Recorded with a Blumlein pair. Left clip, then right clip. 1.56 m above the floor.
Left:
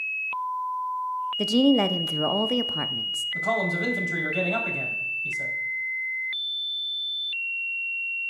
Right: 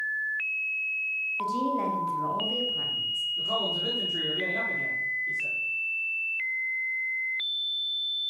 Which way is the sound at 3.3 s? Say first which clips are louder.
Left 5 dB; 45° left.